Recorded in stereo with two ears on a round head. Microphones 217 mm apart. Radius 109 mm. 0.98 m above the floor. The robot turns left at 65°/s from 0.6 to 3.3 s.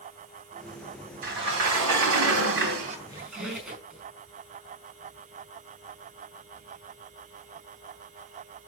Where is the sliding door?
40° right, 2.5 m; by 3.0 s 155° right, 2.5 m.